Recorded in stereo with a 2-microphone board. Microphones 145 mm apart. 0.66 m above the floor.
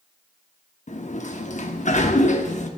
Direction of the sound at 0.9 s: 55° left (ahead or behind).